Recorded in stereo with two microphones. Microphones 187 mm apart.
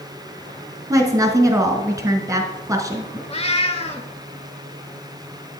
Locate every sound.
0.9 s a woman speaking: 20° right (ahead or behind), 1.1 m
3.3 s a cat meowing: 35° left (ahead or behind), 0.7 m